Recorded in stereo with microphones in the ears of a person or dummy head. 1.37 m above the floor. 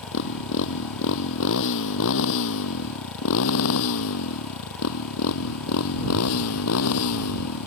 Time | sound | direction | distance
0.0 | a motorcycle | 65° left (ahead or behind) | ?